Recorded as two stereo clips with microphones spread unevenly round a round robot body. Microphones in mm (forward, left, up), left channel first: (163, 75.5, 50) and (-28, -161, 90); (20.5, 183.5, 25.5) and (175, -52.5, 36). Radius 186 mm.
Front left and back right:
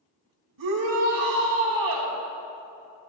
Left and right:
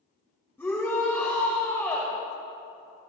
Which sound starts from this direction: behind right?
A shout, at 0.6 s.